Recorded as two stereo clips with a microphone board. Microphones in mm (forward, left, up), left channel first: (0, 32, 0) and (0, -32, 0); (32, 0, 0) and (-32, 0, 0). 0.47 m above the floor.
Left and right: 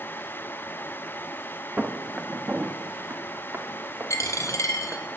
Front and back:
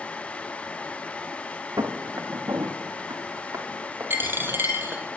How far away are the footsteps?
About 2.5 m.